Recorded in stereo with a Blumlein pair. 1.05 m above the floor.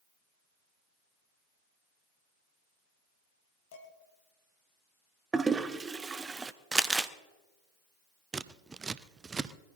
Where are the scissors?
15° right, 0.5 m.